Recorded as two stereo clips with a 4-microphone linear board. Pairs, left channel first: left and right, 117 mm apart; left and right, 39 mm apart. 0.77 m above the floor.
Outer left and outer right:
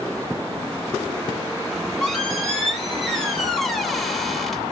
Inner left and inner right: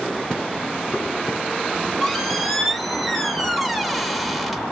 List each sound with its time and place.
1.7 s a squeak: 5° left (ahead or behind), 0.6 m